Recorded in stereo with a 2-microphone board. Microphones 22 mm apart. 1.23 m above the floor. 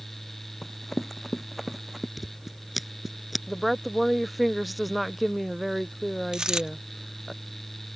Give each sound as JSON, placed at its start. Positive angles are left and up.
{"t": 0.6, "sound": "running footsteps", "side_deg": 10}
{"t": 2.2, "sound": "scissors", "side_deg": -5}
{"t": 3.5, "sound": "a woman speaking", "side_deg": -5}
{"t": 6.3, "sound": "a dropped coin", "side_deg": -30}